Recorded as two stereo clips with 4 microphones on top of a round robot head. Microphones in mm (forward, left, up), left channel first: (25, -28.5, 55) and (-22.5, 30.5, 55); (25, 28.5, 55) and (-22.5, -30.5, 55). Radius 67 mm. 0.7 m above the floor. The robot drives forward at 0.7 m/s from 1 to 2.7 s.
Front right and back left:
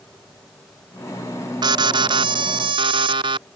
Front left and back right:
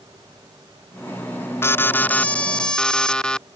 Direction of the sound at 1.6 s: 110° left.